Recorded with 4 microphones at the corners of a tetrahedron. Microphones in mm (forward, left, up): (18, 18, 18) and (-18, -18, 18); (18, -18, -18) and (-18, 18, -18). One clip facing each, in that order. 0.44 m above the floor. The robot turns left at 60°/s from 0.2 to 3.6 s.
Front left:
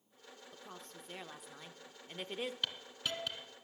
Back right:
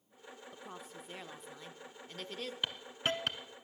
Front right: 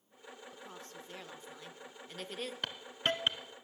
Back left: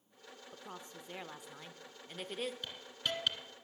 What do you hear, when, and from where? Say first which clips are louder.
0.5 s a woman speaking: back right 3 dB, even; 175° left, 0.7 m; by 2.5 s 55° left, 0.7 m
2.6 s a hiss: back right 4 dB, front right 5 dB; 65° right, 0.8 m; by 3.4 s 110° right, 0.8 m